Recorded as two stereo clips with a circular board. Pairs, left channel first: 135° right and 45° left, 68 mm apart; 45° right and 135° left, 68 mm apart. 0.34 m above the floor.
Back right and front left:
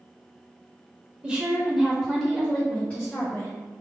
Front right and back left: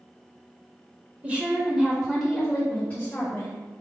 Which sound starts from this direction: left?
A woman speaking, at 1.2 s.